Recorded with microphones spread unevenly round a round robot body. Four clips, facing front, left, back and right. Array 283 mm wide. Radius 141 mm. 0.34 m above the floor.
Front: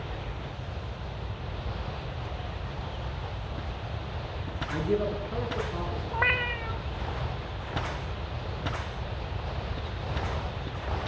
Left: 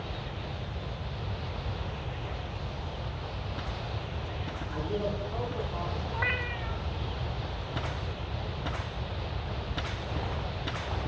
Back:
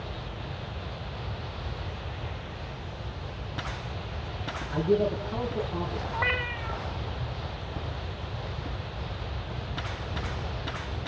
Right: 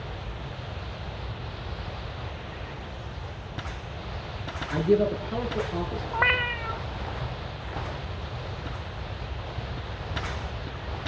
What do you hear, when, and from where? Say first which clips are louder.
4.7 s a man speaking: right 11 dB, back 3 dB; 85° right, 6 m
6.1 s a cat meowing: right 10 dB, front 3 dB; 65° right, 1.2 m